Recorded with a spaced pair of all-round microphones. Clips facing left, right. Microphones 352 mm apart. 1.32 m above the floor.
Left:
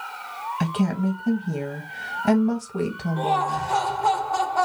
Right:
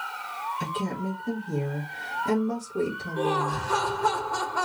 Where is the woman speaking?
80° left, 1.2 m.